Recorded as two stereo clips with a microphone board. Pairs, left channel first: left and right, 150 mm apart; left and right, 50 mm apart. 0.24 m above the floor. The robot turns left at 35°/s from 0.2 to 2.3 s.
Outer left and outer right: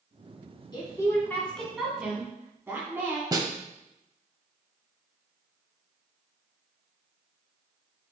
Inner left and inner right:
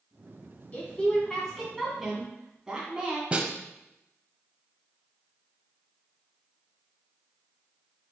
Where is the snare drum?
25° right (ahead or behind), 0.6 m.